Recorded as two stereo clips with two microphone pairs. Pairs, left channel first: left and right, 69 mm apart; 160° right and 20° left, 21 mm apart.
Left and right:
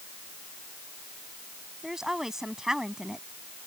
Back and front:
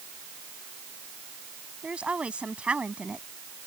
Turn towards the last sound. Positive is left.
turn(degrees=-5)